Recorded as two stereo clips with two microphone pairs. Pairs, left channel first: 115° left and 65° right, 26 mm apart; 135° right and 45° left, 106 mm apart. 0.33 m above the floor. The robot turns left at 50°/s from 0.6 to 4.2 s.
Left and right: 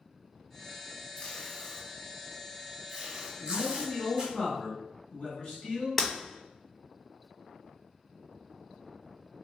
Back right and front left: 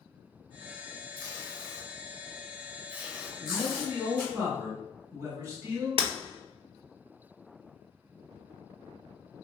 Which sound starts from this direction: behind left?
A man speaking, at 3.4 s.